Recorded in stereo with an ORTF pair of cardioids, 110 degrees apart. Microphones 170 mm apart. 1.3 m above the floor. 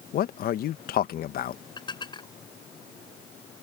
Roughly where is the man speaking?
Ahead left.